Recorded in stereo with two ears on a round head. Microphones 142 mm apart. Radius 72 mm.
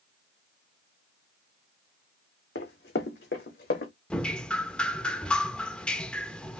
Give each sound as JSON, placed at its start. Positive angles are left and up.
{"t": 2.5, "sound": "running footsteps", "side_deg": 75, "distance_m": 2.0}
{"t": 4.1, "sound": "dripping", "side_deg": 5, "distance_m": 0.5}